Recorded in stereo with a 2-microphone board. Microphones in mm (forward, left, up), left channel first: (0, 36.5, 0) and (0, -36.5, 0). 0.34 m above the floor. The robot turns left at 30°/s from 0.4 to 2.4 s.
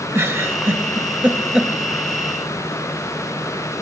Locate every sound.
0.1 s a giggle: 40° right (ahead or behind), 0.8 m; by 1.7 s 10° right (ahead or behind), 0.8 m